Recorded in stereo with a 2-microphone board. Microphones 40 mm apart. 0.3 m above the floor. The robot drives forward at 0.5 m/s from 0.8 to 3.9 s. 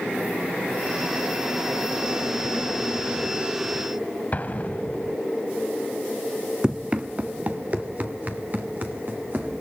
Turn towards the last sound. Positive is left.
turn(degrees=-45)  # may be behind; listen again after turning